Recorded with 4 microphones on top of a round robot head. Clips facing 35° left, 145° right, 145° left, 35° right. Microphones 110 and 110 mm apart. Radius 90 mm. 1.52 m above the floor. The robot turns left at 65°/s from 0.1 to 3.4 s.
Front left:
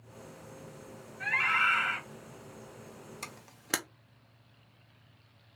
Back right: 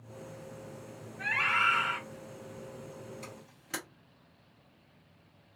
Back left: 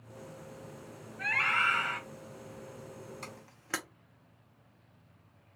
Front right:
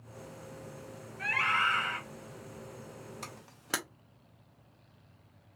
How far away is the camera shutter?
About 0.5 m.